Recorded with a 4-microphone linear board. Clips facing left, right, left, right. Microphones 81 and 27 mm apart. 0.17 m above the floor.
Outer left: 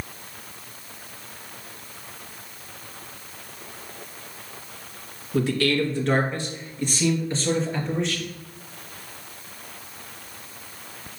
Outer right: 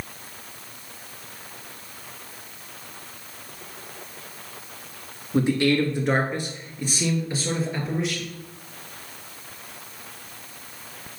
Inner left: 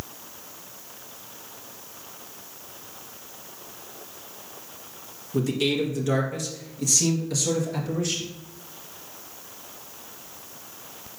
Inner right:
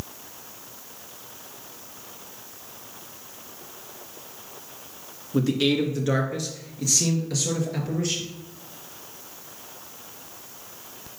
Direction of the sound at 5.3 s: 20° right (ahead or behind).